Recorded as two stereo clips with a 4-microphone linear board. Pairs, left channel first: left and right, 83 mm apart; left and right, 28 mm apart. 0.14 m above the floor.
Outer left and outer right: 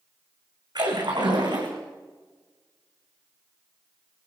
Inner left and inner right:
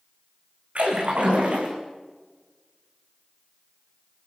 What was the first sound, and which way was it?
A splash, 60° right (ahead or behind).